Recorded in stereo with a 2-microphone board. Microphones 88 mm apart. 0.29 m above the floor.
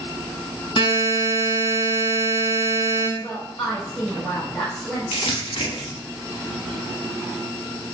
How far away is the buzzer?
About 0.8 m.